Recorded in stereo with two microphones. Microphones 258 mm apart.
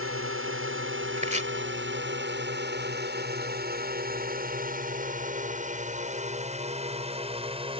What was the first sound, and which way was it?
A drone, 55° right (ahead or behind).